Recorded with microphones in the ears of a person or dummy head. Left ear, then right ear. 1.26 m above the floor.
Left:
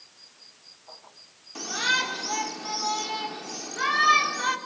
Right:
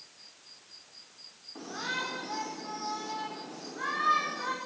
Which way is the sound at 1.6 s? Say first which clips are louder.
Left 10 dB; 70° left (ahead or behind).